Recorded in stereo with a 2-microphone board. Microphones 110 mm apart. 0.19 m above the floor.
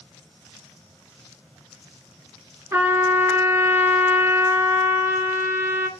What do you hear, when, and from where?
2.7 s a trumpet: 20° right (ahead or behind), 0.8 m